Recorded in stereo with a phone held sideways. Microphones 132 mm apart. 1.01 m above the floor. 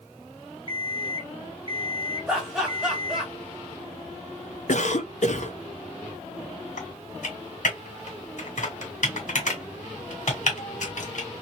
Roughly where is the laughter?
Centre.